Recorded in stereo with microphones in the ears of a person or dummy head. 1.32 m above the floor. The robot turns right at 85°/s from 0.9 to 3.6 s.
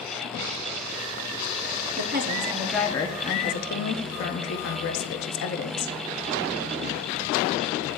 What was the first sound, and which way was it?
A woman speaking, 65° right.